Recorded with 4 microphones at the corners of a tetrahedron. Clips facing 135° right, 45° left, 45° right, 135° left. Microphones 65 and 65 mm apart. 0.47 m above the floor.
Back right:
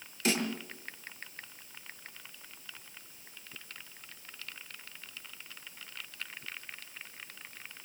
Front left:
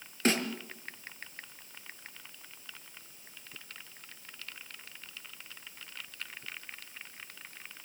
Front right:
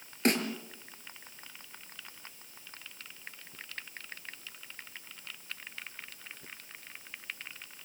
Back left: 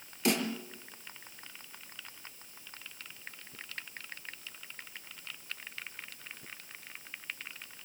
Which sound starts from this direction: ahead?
A snare drum, at 0.2 s.